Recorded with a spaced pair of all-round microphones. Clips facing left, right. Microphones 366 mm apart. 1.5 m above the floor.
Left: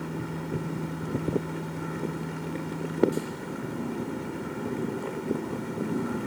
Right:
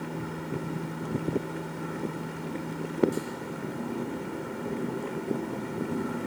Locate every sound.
0.0 s a machine running: 15° left (ahead or behind), 6.5 m